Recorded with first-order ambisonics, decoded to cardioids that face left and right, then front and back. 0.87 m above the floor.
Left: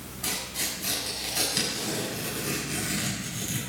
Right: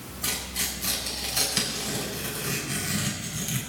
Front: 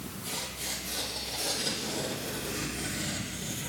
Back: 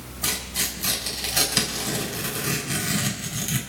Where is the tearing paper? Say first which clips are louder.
Right 1 dB, back 9 dB; straight behind, 6 m.